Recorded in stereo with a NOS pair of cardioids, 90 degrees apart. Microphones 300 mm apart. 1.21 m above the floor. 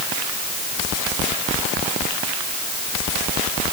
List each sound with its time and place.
Only background noise.